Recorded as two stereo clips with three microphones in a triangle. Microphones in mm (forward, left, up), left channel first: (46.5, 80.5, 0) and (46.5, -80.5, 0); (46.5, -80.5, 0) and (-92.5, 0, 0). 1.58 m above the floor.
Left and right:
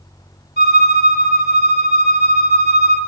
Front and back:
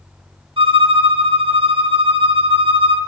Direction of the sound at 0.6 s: 95° left.